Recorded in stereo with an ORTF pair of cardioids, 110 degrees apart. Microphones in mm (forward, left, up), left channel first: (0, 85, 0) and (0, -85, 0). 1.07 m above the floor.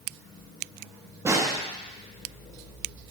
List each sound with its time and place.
1.2 s a snare drum: 15° right, 1.2 m